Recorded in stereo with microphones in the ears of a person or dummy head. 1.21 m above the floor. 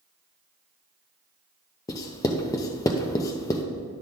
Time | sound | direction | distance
1.9 | writing | 20° left (ahead or behind) | 0.7 m